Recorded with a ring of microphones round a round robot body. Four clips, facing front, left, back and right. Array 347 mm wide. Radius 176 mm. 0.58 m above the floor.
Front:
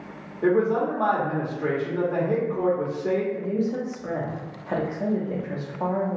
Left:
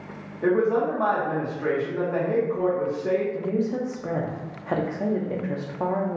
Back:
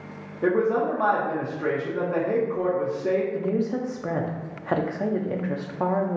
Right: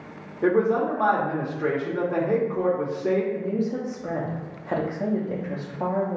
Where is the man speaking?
125° right, 0.9 m.